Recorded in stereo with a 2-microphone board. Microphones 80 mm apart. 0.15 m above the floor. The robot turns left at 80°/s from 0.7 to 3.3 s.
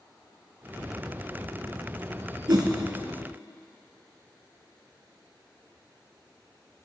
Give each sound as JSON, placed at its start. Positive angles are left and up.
{"t": 2.5, "sound": "a whoosh", "side_deg": -65, "distance_m": 1.5}